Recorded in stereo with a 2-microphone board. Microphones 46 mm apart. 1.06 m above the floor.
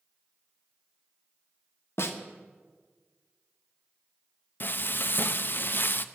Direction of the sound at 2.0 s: 70° left (ahead or behind).